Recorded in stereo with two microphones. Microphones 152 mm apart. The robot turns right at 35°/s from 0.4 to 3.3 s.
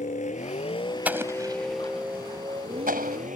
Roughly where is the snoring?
No snoring in this recording.